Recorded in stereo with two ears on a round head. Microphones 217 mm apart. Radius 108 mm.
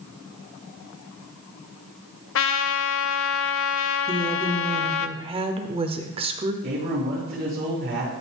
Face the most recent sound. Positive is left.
turn(degrees=-35)  # may be behind; listen again after turning